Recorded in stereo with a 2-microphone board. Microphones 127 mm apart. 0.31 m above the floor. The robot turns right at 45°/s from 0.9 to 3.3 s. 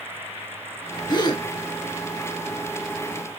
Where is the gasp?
35° left (ahead or behind), 0.5 m; by 1.4 s 30° left (ahead or behind), 0.5 m.